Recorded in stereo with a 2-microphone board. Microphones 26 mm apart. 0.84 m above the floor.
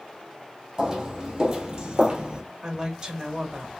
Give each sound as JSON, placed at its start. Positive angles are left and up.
{"t": 0.8, "sound": "footsteps", "side_deg": -20, "distance_m": 2.0}
{"t": 2.6, "sound": "a woman speaking", "side_deg": -30, "distance_m": 1.2}